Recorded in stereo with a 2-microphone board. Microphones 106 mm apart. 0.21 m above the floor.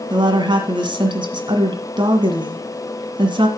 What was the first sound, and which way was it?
A woman speaking, 50° right (ahead or behind).